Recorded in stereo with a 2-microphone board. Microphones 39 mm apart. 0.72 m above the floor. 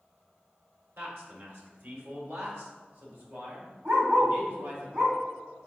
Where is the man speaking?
70° right (ahead or behind), 2 m.